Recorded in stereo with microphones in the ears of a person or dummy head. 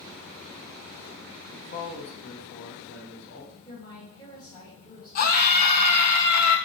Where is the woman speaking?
25° left (ahead or behind), 1.5 m.